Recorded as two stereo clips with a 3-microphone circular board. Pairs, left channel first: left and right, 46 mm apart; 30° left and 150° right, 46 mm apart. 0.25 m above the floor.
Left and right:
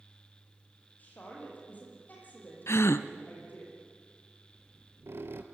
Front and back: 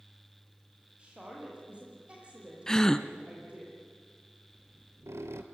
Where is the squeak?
125° right, 1.9 m.